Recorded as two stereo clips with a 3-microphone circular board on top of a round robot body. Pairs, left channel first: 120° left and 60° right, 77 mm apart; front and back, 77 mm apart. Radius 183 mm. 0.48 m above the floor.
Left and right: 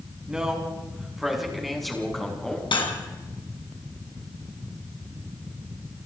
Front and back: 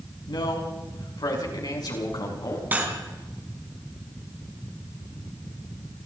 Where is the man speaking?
20° left, 6 m; by 2.6 s 35° left, 6.5 m.